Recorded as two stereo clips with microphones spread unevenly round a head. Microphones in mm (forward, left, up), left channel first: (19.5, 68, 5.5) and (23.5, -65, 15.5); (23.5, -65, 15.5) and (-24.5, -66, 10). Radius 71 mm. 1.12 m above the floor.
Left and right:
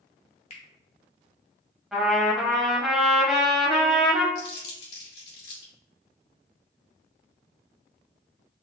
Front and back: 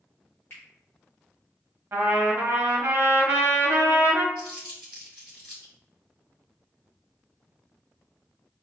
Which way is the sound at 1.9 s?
Straight behind.